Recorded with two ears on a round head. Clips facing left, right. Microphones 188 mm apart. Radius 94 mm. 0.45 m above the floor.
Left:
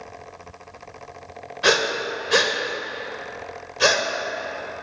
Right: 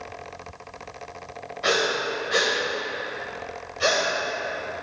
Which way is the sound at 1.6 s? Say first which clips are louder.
Left 2 dB; 65° left (ahead or behind).